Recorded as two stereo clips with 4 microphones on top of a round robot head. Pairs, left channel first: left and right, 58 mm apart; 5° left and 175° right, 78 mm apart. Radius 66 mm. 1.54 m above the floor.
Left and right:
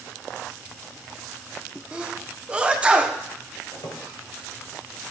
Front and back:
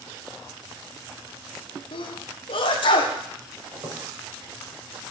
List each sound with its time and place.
1.9 s a sneeze: 20° right, 1.2 m
3.7 s a squeak: 135° left, 3.5 m